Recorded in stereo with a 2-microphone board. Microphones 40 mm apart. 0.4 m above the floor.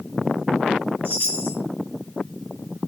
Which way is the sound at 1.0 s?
70° left (ahead or behind).